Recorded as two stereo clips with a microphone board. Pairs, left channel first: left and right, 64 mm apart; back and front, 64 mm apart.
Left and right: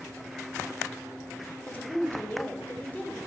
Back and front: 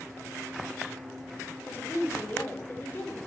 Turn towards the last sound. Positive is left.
turn(degrees=140)